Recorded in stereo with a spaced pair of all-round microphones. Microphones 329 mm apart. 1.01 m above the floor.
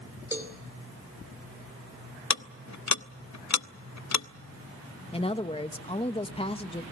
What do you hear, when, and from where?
0.3 s a cowbell: 5° right (ahead or behind), 3 m
2.3 s ticking: 60° left (ahead or behind), 0.5 m
5.1 s a woman speaking: 20° left (ahead or behind), 1.1 m